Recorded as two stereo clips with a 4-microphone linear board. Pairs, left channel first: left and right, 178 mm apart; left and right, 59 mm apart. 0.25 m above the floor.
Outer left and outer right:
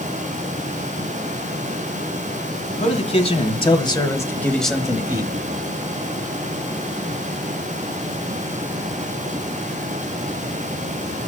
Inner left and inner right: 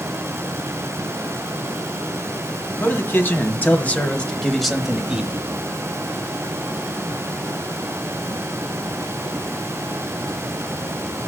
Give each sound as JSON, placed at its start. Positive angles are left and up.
{"t": 2.8, "sound": "a man speaking", "side_deg": 40, "distance_m": 1.6}